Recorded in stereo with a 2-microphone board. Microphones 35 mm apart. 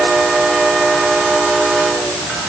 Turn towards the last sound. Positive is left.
No sound to turn to.